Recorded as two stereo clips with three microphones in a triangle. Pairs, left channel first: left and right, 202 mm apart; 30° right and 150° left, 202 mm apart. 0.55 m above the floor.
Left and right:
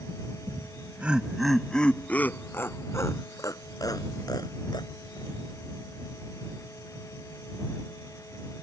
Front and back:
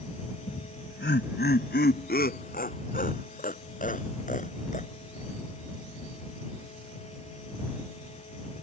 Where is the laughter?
15° right; by 5.3 s 20° left.